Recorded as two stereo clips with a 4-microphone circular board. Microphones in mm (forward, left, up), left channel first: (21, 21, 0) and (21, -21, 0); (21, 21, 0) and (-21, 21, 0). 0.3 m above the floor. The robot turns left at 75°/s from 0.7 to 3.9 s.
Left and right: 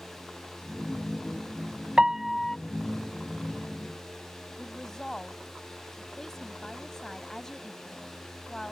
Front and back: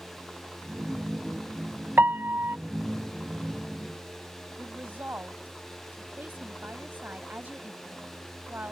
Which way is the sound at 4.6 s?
165° left.